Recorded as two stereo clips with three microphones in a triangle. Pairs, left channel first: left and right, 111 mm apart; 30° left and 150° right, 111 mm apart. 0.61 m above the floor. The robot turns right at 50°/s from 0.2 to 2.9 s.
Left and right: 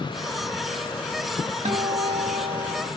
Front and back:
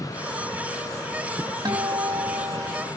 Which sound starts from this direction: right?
A guitar, at 1.6 s.